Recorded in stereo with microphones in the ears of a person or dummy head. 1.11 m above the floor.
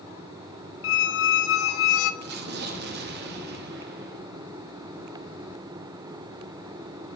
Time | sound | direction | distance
0.8 | a squeak | 75° left (ahead or behind) | 0.7 m
2.2 | an explosion | 60° right (ahead or behind) | 1.7 m